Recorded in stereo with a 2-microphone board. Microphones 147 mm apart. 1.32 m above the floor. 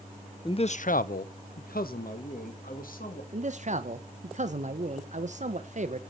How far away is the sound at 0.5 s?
About 0.5 m.